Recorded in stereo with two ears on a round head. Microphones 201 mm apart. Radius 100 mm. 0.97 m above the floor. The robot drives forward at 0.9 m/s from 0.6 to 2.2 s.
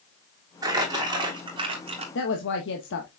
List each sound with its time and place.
0.6 s crumpling: 15° right (ahead or behind), 3.5 m; by 2.0 s 25° right (ahead or behind), 2 m
2.1 s a woman speaking: 55° left (ahead or behind), 1.3 m